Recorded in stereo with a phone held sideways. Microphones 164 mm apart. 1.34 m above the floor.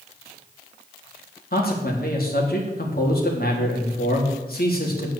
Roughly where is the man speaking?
Left.